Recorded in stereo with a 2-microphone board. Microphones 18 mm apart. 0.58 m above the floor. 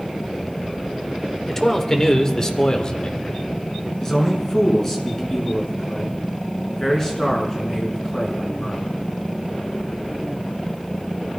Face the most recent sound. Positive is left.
turn(degrees=30)  # may be behind; listen again after turning